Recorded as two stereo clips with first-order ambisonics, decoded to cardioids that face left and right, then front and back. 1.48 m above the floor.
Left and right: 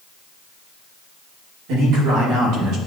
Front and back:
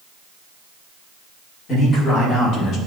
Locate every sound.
1.7 s a man speaking: 60° right, 2.5 m; by 2.8 s 50° right, 1.5 m